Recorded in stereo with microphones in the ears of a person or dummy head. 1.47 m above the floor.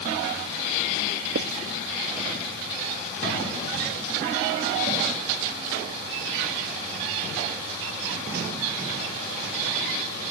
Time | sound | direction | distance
1.4 | writing | 60° right (ahead or behind) | ?